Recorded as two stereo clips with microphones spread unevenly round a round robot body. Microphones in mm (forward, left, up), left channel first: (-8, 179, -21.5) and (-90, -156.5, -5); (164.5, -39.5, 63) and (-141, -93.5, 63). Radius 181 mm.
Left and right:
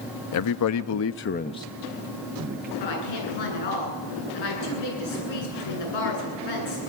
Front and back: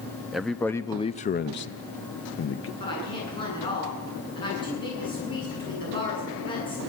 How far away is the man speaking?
About 0.8 m.